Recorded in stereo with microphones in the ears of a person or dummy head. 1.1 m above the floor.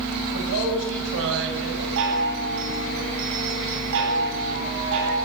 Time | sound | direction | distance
0.3 | a man speaking | 70° right (ahead or behind) | 6 m
2.0 | a chime | 70° right (ahead or behind) | 10 m